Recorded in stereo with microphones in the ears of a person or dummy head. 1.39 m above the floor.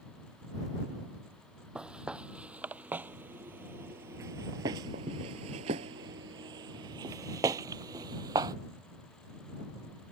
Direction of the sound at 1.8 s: 5° right (ahead or behind).